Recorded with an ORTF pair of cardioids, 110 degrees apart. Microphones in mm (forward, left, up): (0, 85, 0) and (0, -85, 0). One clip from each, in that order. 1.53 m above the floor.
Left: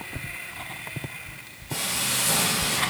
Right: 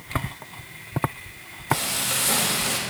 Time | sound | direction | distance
1.7 | frying | 40° right | 3 m